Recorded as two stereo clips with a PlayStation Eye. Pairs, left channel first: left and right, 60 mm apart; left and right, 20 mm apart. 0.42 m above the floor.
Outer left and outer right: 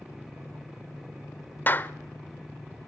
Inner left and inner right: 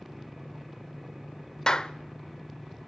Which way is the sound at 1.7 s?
35° left (ahead or behind).